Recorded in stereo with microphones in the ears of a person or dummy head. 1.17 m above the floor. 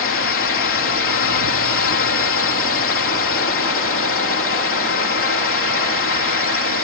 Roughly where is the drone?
Left.